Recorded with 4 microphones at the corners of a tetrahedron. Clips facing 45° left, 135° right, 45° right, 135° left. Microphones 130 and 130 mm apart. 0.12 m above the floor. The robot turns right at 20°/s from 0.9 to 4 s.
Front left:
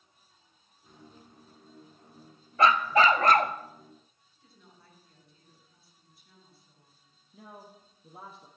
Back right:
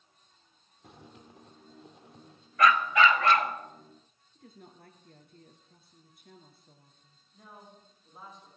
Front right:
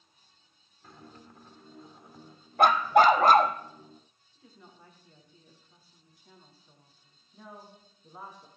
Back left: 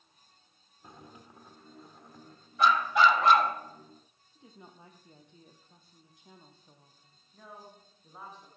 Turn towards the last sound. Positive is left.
turn(degrees=35)